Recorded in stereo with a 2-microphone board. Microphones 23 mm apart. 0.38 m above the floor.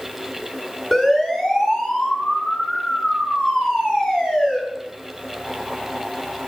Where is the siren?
15° left (ahead or behind), 7.5 m; by 4.6 s 40° left (ahead or behind), 9.5 m.